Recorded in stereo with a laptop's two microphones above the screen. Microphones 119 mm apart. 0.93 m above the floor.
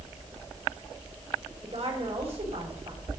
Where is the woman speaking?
55° right (ahead or behind), 4 m.